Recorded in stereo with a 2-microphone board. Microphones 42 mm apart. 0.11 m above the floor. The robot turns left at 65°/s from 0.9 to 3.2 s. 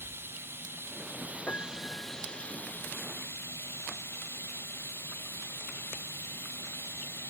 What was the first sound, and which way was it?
Running water, 115° right.